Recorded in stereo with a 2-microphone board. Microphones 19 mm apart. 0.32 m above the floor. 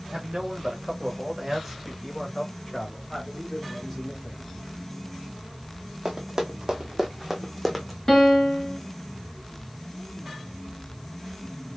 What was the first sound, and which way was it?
A man speaking, 50° right (ahead or behind).